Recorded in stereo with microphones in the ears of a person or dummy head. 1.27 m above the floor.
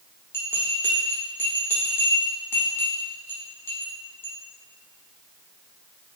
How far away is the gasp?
No gasp in this recording.